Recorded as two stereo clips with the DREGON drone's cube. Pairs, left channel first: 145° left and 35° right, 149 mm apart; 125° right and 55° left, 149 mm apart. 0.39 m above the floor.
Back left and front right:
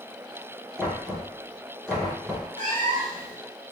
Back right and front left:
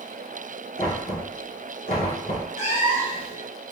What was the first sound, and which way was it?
Knocking, 130° right.